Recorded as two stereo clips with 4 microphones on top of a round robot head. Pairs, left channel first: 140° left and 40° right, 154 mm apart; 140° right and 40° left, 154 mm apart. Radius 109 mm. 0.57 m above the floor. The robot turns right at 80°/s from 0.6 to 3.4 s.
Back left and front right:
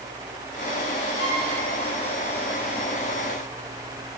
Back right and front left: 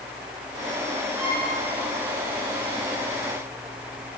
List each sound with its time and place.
1.1 s a violin: 130° left, 4.5 m; by 1.5 s 160° left, 4.5 m